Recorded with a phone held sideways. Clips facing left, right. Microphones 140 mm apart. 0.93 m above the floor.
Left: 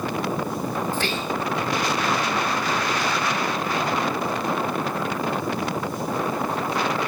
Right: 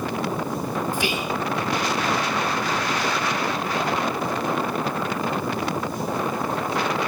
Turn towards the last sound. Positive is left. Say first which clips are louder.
# right 1 dB
turn(degrees=-15)  # may be behind; listen again after turning